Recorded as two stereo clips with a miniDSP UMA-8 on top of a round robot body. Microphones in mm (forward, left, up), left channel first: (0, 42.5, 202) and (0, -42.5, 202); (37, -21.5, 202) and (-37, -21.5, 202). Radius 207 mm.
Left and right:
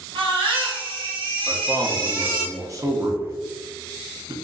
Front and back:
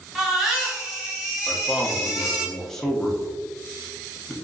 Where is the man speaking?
80° right, 1.2 m.